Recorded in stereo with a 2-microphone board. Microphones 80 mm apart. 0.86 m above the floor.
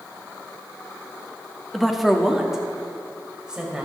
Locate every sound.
1.7 s a woman speaking: centre (ahead or behind), 1.2 m; by 3.9 s 10° right (ahead or behind), 4.5 m